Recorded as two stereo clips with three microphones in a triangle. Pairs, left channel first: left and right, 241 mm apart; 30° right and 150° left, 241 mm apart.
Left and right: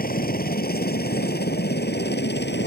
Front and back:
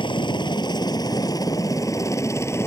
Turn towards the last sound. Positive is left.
turn(degrees=50)